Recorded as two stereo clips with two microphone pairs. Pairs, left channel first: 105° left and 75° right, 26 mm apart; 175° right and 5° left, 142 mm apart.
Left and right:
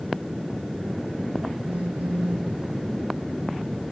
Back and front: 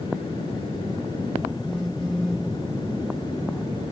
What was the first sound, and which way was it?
A phone buzzing, 90° right.